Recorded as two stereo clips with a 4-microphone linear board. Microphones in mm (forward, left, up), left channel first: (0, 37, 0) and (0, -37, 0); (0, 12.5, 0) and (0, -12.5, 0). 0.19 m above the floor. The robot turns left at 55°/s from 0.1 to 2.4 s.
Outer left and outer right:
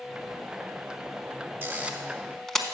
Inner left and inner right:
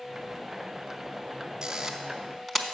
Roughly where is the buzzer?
No buzzer in this recording.